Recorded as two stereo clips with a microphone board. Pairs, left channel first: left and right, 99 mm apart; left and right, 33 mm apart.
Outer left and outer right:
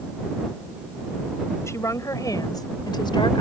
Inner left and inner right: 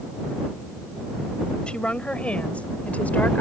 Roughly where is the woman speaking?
Left.